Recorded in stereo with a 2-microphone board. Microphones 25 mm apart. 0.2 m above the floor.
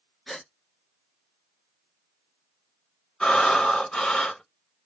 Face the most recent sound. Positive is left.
turn(degrees=35)  # may be behind; listen again after turning